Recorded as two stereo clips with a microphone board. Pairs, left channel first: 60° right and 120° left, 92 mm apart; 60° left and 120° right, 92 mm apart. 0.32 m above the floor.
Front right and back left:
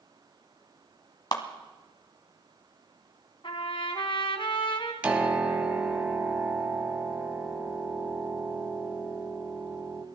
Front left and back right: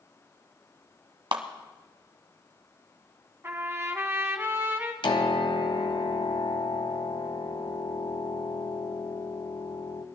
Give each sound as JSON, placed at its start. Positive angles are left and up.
{"t": 1.3, "sound": "a clap", "azimuth_deg": -100, "distance_m": 1.5}
{"t": 3.4, "sound": "a trumpet", "azimuth_deg": -55, "distance_m": 1.6}
{"t": 5.0, "sound": "a piano", "azimuth_deg": 45, "distance_m": 1.3}